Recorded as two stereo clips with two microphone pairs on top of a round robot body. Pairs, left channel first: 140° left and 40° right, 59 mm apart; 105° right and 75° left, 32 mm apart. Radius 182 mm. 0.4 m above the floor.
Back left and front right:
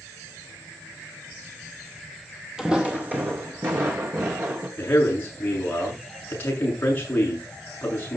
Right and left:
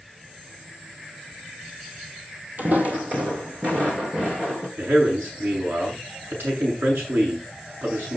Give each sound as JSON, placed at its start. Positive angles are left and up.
{"t": 2.6, "sound": "footsteps", "azimuth_deg": 45, "distance_m": 0.7}
{"t": 4.8, "sound": "a man speaking", "azimuth_deg": 80, "distance_m": 7.5}